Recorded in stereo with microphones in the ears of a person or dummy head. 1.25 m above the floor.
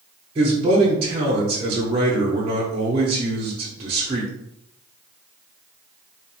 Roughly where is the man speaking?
Right.